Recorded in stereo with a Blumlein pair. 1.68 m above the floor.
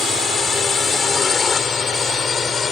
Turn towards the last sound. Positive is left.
turn(degrees=20)